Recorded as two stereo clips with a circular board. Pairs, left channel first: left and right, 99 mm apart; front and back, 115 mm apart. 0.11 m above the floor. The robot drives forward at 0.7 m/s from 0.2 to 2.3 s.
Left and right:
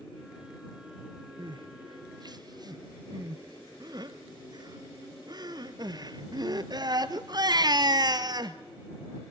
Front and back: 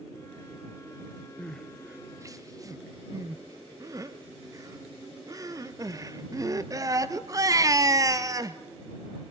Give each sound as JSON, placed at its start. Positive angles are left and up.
{"t": 1.4, "sound": "crying", "azimuth_deg": -75, "distance_m": 0.8}